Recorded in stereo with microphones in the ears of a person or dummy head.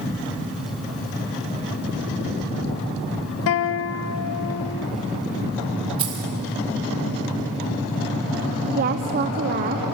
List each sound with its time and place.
3.5 s a guitar: 75° left (ahead or behind), 0.8 m
6.0 s keys jangling: 25° right (ahead or behind), 2.5 m
8.8 s a woman speaking: 45° right (ahead or behind), 0.6 m